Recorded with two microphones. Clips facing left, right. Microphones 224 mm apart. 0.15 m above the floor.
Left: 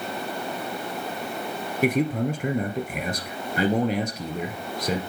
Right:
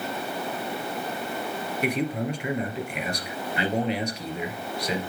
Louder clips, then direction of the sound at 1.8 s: Left 5 dB; 45° left (ahead or behind).